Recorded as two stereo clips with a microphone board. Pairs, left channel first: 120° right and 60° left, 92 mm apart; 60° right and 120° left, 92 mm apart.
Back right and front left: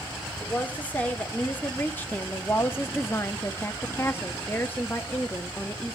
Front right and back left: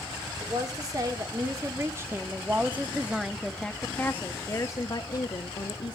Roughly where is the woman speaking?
Behind.